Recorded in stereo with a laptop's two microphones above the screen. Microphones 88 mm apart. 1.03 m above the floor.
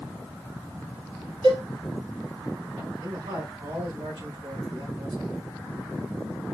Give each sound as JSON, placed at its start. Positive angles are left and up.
{"t": 1.4, "sound": "a cowbell", "side_deg": -75, "distance_m": 3.0}
{"t": 3.0, "sound": "a man speaking", "side_deg": -75, "distance_m": 3.0}